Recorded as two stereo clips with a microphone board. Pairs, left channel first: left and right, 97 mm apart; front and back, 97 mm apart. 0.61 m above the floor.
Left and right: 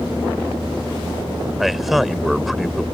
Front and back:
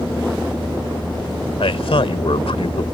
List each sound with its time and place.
1.6 s a man speaking: straight ahead